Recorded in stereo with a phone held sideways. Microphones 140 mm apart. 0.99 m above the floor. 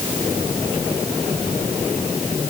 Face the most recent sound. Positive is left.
No sound to turn to.